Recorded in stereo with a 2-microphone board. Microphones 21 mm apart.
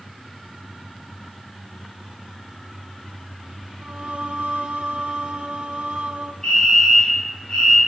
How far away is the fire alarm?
About 7.5 m.